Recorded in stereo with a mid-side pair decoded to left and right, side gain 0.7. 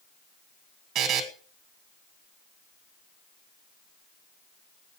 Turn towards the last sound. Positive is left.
turn(degrees=-55)